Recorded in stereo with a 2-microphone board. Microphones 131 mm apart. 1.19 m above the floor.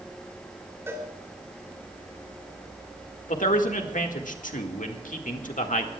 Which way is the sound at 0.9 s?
20° right (ahead or behind).